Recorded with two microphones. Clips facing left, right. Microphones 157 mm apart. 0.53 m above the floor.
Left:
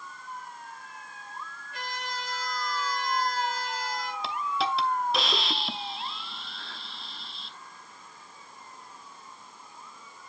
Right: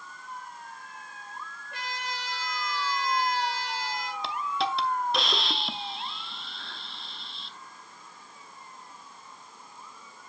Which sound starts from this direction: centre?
A hiss, at 4.2 s.